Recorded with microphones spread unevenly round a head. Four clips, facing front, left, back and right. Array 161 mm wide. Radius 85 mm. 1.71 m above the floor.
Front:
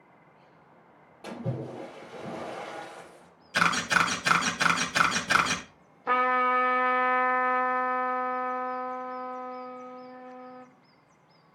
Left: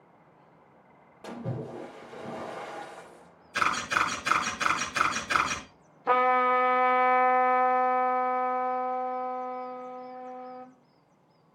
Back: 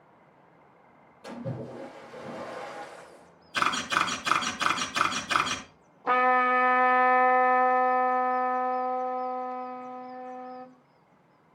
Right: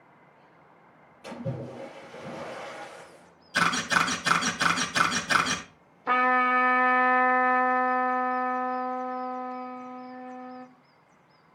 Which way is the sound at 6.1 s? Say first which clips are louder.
Even, back 2 dB; 130° left.